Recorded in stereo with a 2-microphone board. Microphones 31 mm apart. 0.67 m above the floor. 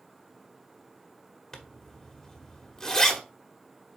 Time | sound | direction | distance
1.5 | a zipper | 10° left (ahead or behind) | 1.4 m